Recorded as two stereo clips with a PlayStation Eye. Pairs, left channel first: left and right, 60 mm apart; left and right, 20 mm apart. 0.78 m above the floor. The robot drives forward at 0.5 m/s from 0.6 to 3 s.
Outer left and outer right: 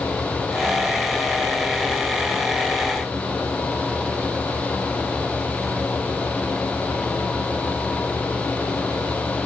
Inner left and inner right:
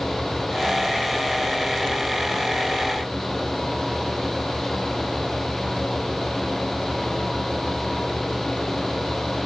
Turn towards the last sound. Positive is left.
No sound to turn to.